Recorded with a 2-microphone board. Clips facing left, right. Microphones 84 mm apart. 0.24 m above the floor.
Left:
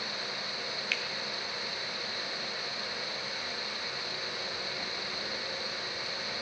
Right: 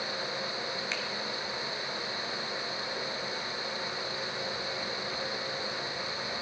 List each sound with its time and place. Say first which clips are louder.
0.9 s a finger snap: right 1 dB; 25° right (ahead or behind), 1.1 m